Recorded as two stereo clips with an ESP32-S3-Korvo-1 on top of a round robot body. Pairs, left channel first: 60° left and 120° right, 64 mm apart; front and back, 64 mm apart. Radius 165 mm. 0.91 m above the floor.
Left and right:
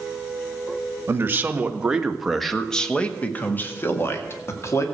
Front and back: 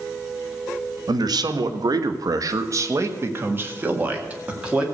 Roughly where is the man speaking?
Behind.